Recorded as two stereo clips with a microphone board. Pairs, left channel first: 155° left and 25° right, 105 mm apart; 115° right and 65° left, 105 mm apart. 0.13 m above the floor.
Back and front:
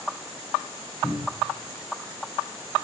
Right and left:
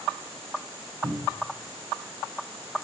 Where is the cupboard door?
95° left, 3 m.